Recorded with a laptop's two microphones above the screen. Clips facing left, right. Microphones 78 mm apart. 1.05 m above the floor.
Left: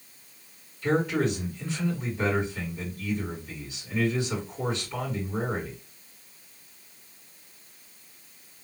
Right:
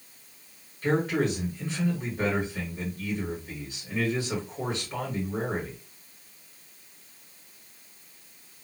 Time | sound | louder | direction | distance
0.8 | a man speaking | even | 40° right (ahead or behind) | 2.0 m